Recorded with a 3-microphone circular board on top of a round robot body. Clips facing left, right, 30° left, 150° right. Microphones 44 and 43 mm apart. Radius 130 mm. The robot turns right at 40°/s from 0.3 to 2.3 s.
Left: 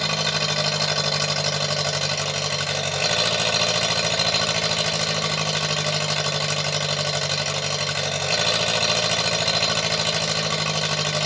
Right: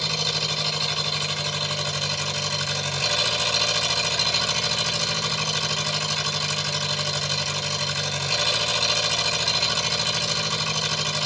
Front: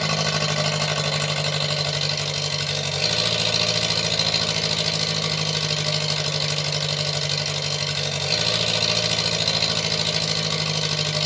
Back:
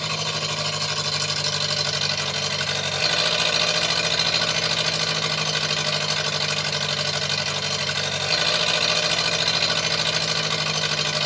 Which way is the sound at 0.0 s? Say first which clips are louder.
Left 3 dB, front 3 dB; 55° left.